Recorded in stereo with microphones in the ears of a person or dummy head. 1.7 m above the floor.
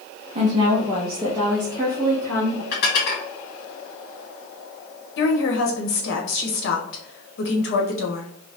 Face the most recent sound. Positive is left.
turn(degrees=65)  # may be behind; listen again after turning